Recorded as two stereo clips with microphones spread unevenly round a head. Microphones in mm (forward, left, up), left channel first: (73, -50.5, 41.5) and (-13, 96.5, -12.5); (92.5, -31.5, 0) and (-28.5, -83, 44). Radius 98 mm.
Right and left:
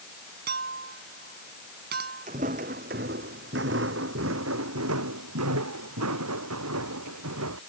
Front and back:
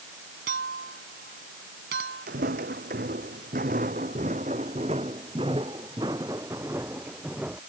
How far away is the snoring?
I don't hear snoring.